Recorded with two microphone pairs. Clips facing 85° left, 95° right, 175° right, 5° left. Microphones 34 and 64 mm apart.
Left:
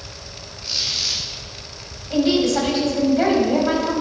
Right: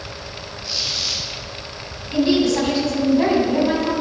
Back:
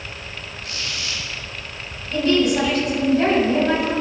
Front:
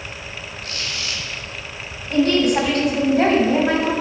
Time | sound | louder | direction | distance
0.6 | a squeak | left 1 dB, front 1 dB | 45° left | 3 m
2.1 | a woman speaking | right 1 dB, front 1 dB | 45° left | 3 m